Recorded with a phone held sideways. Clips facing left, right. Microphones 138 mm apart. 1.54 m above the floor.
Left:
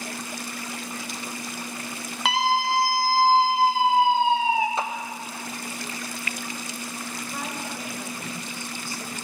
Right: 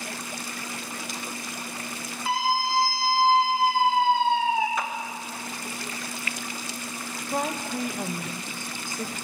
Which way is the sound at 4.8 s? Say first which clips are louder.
Left 2 dB; 30° left (ahead or behind).